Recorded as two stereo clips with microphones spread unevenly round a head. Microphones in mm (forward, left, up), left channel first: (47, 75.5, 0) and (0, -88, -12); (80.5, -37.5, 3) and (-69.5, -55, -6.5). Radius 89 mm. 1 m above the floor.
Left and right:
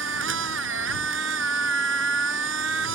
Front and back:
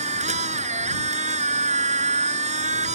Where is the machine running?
130° right.